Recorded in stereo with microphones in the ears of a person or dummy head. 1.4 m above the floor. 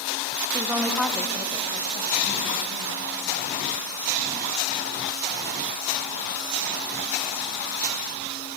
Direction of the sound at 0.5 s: 15° right (ahead or behind).